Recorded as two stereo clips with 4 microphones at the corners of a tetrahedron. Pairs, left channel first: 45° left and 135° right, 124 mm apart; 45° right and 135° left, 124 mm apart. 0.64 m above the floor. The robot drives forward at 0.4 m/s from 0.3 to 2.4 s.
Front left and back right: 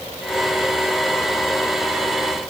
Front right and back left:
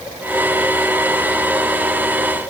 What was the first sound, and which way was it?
Only background noise.